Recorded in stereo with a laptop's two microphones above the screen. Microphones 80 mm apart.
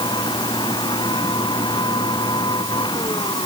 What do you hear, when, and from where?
0.0 s a machine running: 75° left (ahead or behind)